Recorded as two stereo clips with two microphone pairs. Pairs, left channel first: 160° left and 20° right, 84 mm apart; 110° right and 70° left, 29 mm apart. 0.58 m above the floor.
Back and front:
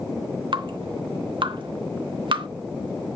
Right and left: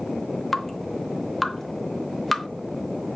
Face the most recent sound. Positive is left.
turn(degrees=-25)